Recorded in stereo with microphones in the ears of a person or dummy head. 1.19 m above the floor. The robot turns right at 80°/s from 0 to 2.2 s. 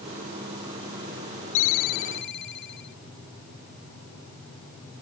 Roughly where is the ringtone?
Left.